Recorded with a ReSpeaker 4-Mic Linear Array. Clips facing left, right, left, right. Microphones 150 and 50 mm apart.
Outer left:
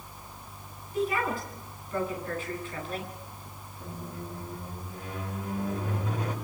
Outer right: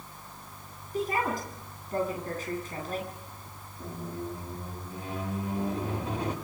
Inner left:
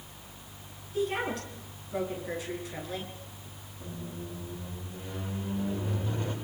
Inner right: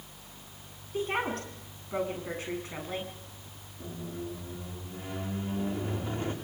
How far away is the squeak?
About 8 m.